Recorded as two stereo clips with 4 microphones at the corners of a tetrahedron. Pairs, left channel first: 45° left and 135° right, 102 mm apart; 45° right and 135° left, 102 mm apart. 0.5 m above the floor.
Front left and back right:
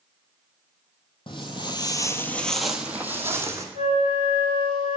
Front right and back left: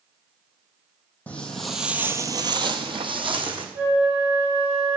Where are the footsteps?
30° left, 0.9 m; by 3.6 s 165° left, 1.2 m.